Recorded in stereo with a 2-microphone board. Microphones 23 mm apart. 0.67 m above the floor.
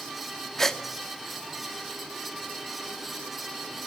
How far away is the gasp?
About 1.7 m.